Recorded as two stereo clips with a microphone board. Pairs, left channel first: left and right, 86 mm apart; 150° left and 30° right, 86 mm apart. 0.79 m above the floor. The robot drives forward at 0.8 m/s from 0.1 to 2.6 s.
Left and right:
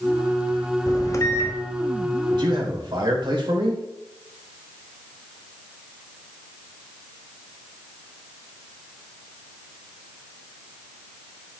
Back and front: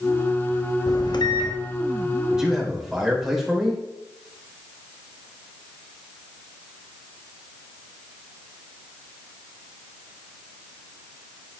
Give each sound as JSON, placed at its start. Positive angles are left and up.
{"t": 0.9, "sound": "a microwave", "azimuth_deg": 125, "distance_m": 0.9}
{"t": 2.3, "sound": "a man speaking", "azimuth_deg": -110, "distance_m": 3.0}